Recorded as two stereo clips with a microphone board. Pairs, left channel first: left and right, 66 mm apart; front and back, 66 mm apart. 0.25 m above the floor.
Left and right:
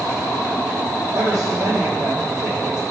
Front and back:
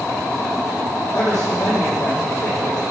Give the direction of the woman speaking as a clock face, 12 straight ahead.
1 o'clock.